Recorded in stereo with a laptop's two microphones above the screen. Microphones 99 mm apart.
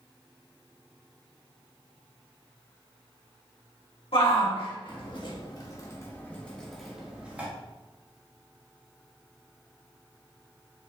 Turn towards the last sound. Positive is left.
turn(degrees=-15)  # may be behind; listen again after turning